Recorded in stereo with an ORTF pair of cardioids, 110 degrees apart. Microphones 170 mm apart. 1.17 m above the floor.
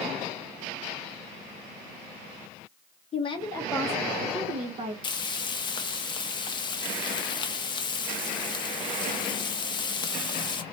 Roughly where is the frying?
Ahead left.